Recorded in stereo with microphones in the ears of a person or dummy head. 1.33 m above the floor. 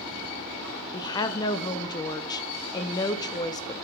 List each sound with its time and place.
0.9 s a woman speaking: 20° left (ahead or behind), 0.6 m